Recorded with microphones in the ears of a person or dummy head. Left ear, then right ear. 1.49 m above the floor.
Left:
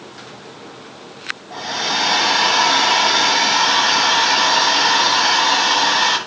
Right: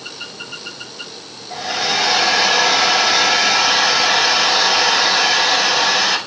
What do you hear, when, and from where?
1.5 s a hair dryer: 80° right, 6.5 m